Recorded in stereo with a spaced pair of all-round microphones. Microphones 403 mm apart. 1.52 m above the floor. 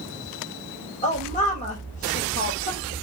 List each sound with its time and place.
1.0 s a woman speaking: 20° left (ahead or behind), 3 m